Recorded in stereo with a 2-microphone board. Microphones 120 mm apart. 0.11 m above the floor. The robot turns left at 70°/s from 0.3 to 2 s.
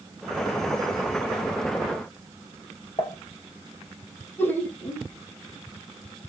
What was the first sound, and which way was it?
Dishes clattering, 40° left (ahead or behind).